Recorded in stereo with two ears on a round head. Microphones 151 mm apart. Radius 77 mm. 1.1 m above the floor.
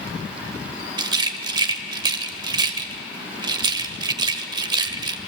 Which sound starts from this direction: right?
A rattle, at 1.0 s.